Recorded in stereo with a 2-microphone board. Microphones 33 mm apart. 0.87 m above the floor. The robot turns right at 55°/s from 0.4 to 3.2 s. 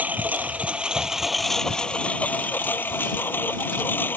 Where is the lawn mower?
55° right; by 4.2 s 100° left.